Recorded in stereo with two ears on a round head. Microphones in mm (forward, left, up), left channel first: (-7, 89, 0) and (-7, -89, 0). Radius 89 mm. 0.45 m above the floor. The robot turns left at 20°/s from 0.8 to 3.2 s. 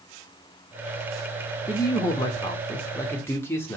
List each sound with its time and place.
1.7 s a man speaking: 20° left (ahead or behind), 0.7 m; by 3.8 s 15° left (ahead or behind), 0.7 m